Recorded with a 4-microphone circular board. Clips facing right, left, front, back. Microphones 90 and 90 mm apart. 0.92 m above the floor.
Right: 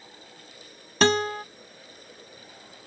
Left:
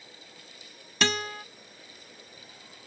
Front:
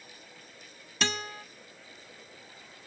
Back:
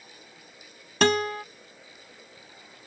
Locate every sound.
1.0 s a guitar: 140° right